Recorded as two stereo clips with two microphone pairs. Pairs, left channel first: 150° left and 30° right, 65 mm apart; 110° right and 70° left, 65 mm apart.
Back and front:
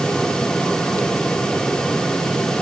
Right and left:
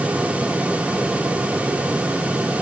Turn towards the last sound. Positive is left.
No sound to turn to.